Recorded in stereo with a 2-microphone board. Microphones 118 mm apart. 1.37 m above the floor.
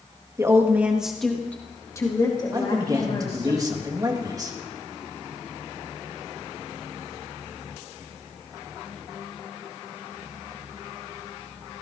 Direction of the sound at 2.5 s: 30° right (ahead or behind).